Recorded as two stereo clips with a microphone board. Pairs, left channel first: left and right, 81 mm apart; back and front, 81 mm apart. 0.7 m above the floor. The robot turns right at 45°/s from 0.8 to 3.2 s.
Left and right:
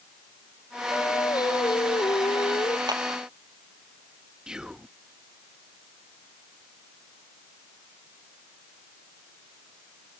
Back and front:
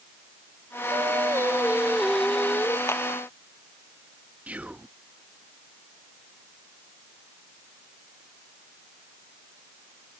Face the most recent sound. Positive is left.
turn(degrees=-25)